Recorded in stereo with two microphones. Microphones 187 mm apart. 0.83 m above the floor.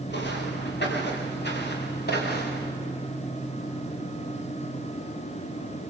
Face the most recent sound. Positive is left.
turn(degrees=60)  # may be behind; listen again after turning